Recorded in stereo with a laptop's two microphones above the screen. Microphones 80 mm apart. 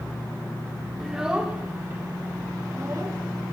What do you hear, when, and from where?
1.0 s a child speaking: 5° right (ahead or behind), 1.2 m; by 3.2 s 50° right (ahead or behind), 1.7 m